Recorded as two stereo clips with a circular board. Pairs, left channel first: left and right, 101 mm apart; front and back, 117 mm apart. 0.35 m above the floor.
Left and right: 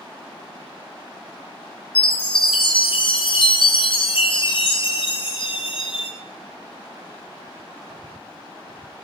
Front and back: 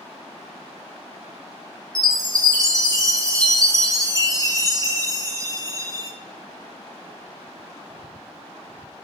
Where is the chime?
120° left, 1.6 m.